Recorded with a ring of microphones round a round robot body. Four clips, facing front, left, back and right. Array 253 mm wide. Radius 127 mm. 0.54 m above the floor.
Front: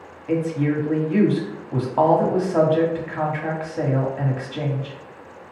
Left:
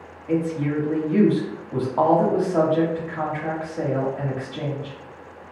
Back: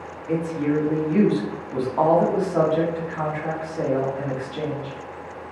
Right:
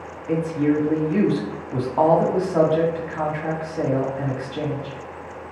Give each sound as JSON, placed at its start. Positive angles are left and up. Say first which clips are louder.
{"t": 0.3, "sound": "a woman speaking", "louder": "right 3 dB, front 1 dB", "azimuth_deg": -20, "distance_m": 1.1}